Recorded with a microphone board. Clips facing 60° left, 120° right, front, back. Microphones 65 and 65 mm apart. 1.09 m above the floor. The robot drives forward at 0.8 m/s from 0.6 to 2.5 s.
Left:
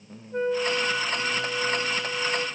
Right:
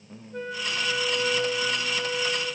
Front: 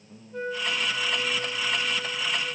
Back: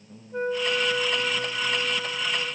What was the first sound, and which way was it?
A flute, 120° left.